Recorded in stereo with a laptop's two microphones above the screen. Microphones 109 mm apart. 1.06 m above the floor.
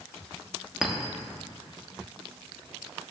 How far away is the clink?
About 1.0 m.